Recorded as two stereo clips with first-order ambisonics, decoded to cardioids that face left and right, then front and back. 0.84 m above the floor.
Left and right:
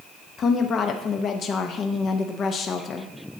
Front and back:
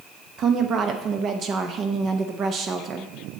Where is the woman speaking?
140° left, 0.6 m.